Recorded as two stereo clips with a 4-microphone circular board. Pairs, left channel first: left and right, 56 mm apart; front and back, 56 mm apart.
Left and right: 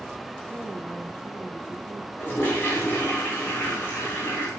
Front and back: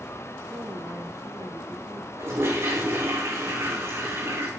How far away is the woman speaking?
About 4.5 m.